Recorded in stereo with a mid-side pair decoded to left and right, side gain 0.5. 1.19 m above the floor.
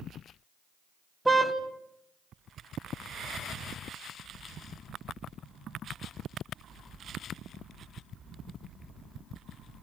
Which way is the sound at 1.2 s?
10° right.